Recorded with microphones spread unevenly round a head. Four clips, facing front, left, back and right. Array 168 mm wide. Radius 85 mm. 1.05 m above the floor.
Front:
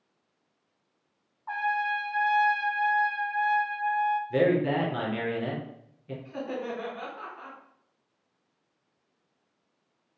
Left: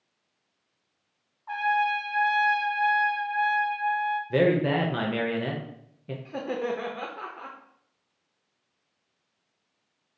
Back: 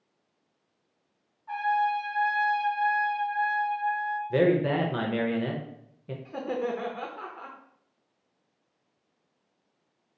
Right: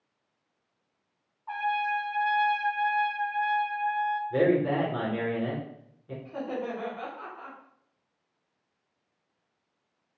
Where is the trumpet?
5° left, 1.0 m.